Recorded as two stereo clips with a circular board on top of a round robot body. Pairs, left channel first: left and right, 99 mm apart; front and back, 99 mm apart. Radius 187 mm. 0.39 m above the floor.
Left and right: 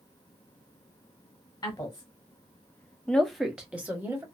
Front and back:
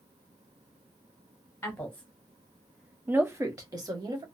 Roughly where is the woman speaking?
Ahead left.